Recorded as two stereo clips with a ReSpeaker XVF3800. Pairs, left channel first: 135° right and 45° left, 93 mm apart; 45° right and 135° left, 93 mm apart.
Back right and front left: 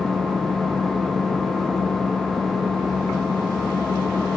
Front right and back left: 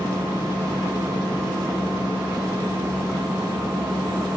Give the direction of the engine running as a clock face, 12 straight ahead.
8 o'clock.